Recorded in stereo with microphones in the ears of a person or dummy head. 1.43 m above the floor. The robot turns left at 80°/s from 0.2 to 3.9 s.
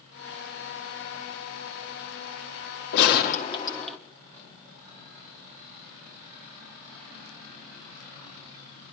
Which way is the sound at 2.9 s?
80° left.